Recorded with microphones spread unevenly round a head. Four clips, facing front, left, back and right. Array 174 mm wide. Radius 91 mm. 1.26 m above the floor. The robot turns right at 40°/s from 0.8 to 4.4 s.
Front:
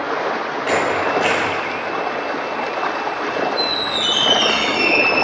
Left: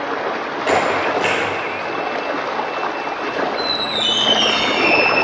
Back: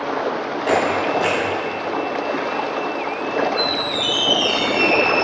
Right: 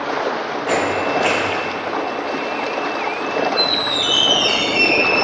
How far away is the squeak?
About 2.0 m.